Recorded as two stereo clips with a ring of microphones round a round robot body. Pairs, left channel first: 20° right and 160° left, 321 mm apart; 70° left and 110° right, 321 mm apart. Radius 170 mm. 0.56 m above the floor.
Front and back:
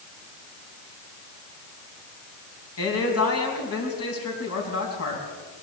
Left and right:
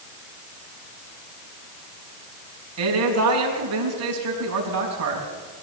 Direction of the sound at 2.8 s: 70° right.